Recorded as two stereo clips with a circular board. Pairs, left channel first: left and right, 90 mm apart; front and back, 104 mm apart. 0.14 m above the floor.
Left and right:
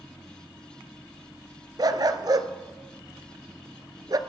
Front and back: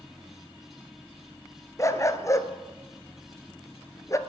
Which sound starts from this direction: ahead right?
A dog barking, at 1.8 s.